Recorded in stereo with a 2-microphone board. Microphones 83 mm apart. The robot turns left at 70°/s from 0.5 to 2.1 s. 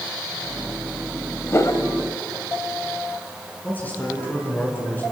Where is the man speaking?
20° left (ahead or behind), 6.5 m.